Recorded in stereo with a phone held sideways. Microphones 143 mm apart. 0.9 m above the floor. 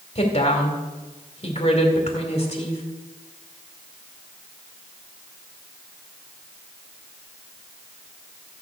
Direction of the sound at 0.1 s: 45° left (ahead or behind).